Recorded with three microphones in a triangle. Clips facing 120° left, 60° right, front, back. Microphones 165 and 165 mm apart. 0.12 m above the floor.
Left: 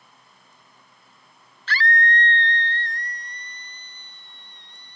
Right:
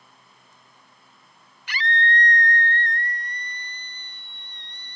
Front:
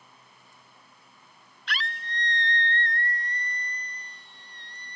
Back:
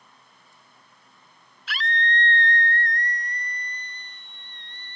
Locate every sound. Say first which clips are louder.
1.7 s a scream: left 2 dB, back 7 dB; 100° right; by 5.0 s 50° right